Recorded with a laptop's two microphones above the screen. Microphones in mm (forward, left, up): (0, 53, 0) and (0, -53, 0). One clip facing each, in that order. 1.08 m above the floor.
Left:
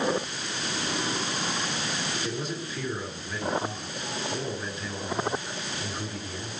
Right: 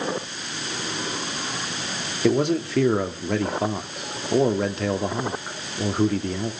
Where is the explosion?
No explosion in this recording.